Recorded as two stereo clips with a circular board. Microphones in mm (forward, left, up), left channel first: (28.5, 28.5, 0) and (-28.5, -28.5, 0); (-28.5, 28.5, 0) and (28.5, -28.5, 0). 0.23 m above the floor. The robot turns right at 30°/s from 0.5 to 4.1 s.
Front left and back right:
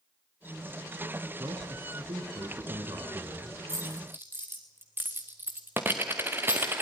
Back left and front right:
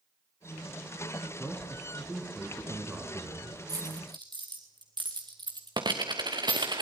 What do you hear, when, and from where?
1.4 s a man speaking: 155° right, 3 m; by 3.6 s 90° right, 3 m
3.7 s a dropped coin: 85° right, 2.5 m; by 6.8 s 70° right, 2.5 m